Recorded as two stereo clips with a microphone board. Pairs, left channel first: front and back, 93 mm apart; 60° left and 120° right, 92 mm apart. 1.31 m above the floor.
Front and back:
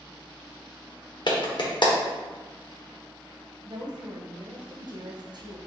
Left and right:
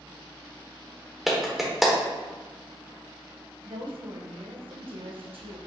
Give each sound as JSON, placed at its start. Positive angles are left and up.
{"t": 1.3, "sound": "a clap", "azimuth_deg": -35, "distance_m": 1.0}
{"t": 3.6, "sound": "a woman speaking", "azimuth_deg": -140, "distance_m": 0.8}